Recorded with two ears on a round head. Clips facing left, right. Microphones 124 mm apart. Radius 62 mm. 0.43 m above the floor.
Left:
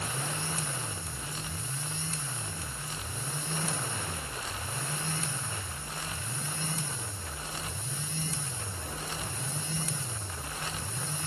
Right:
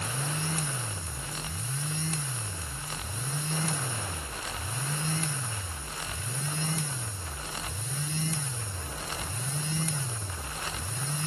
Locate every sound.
Only background noise.